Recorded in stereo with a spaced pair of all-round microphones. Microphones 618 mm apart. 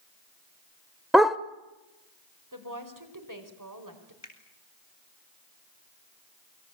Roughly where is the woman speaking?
Right.